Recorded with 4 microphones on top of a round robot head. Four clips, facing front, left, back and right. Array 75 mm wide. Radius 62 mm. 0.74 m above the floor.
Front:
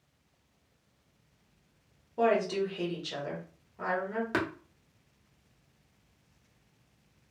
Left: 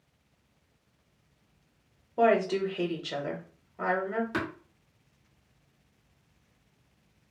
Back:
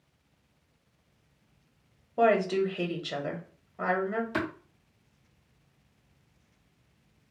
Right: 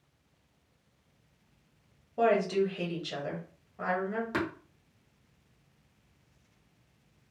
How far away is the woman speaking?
About 0.9 m.